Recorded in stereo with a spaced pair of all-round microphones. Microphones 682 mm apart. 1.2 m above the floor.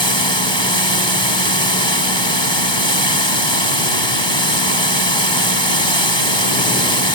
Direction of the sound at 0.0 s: 40° left (ahead or behind).